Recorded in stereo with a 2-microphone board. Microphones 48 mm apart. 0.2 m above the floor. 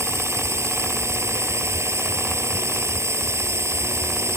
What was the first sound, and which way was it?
A drone, 70° right (ahead or behind).